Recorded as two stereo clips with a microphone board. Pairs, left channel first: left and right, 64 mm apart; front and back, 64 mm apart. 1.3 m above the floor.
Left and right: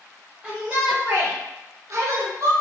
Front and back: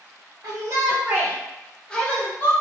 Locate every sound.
0.4 s a shout: 165° right, 0.6 m; by 2.5 s 60° right, 0.8 m